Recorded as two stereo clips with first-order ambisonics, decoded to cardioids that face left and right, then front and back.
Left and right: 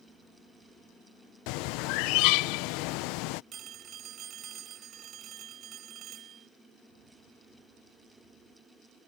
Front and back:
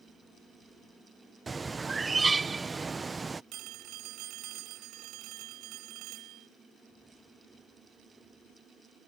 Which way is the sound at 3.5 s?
145° right.